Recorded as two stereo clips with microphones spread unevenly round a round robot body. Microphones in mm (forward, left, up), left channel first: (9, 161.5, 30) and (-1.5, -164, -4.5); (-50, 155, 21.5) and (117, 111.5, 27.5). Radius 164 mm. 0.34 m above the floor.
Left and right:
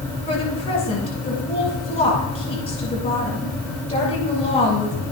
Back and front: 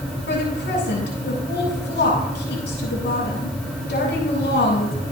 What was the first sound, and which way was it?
A woman speaking, 160° left.